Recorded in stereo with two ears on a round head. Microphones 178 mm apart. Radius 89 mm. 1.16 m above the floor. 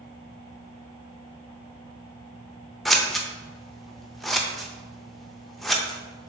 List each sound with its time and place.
2.9 s scissors: centre (ahead or behind), 0.5 m